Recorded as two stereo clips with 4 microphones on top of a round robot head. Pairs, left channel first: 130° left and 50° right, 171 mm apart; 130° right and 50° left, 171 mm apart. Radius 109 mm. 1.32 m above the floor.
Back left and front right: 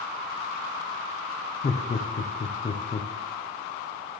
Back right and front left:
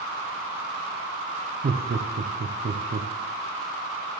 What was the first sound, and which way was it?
Laughter, 80° left.